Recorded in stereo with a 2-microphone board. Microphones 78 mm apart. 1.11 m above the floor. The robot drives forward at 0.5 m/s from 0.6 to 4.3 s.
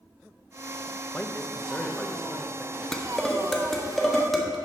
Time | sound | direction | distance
1.1 | a man speaking | 15° left (ahead or behind) | 0.7 m
2.9 | dishes clattering | 5° left (ahead or behind) | 0.7 m